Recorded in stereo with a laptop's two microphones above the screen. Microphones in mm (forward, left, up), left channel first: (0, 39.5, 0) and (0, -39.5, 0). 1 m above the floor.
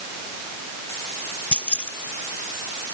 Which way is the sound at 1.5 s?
15° left (ahead or behind).